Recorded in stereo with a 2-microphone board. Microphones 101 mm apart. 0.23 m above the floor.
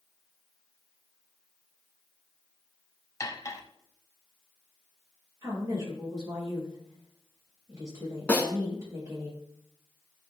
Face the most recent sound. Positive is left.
turn(degrees=15)  # may be behind; listen again after turning